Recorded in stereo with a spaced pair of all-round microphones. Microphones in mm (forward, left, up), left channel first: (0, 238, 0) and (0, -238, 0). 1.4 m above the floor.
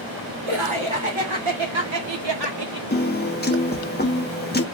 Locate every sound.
0.5 s laughter: 85° right, 1.7 m; by 2.8 s 50° right (ahead or behind), 1.1 m
2.9 s a piano: 20° left (ahead or behind), 0.9 m